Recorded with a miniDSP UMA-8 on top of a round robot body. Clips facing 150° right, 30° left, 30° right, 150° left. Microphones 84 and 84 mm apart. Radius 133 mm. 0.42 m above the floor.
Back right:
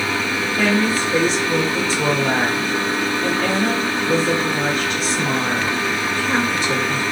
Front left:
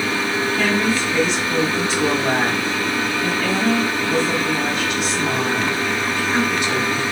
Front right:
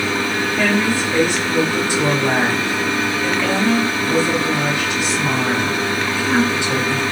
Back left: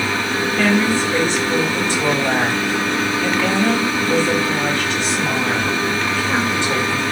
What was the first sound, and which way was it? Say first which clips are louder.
A woman speaking: back right 3 dB, back left 2 dB; 105° right.